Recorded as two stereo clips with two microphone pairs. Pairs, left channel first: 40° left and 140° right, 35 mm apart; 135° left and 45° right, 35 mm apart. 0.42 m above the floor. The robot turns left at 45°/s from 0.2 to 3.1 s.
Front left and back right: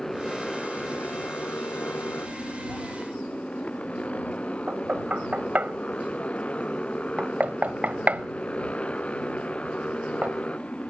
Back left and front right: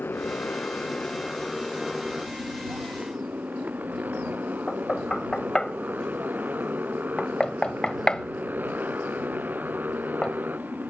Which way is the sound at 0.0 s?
120° left.